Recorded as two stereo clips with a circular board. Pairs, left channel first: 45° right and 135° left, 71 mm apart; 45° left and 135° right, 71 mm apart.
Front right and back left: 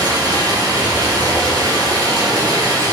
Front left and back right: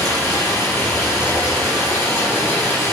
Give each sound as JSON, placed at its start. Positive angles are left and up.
{"t": 0.0, "sound": "running water", "azimuth_deg": 105, "distance_m": 3.0}